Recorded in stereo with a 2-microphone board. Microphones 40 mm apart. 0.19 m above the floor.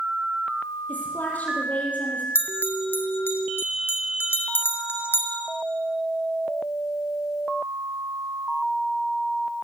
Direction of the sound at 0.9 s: 40° left (ahead or behind).